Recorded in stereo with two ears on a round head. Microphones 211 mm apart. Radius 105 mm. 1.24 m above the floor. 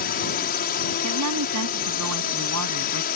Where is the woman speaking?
75° right (ahead or behind).